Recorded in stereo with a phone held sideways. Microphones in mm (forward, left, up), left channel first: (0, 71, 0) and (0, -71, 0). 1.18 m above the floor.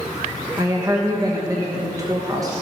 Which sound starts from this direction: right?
A woman speaking, at 0.6 s.